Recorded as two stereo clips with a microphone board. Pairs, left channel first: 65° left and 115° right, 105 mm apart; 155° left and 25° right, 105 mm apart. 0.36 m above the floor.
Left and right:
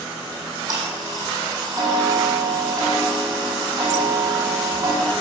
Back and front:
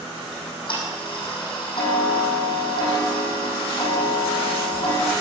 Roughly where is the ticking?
Behind.